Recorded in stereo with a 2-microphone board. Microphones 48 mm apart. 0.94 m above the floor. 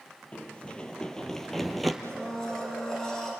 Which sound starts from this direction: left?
Running footsteps, at 0.3 s.